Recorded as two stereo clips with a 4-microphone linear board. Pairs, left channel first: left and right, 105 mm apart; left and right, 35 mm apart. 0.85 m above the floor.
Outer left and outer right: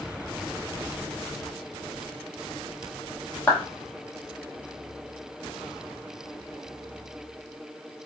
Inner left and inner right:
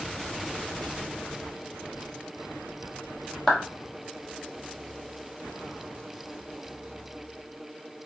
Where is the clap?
15° left (ahead or behind), 0.7 m.